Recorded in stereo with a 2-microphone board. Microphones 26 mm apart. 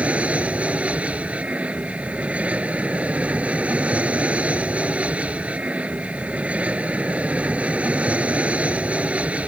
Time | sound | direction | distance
0.0 | an aircraft | 60° right (ahead or behind) | ?